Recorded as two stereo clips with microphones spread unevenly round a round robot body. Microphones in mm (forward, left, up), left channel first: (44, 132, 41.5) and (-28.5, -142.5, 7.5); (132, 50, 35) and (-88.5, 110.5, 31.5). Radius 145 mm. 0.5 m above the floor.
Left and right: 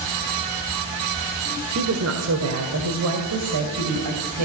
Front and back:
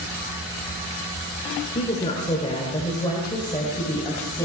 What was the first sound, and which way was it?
A woman speaking, 80° right.